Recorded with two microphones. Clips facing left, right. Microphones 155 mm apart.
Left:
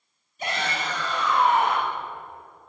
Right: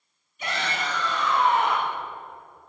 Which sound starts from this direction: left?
A shout, at 0.4 s.